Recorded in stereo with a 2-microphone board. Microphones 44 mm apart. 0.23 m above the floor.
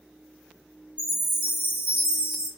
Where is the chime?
20° right (ahead or behind), 1.2 m.